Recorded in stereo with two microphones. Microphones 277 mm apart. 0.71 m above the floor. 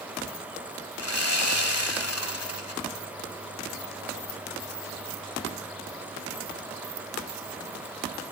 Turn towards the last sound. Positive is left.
turn(degrees=65)  # may be behind; listen again after turning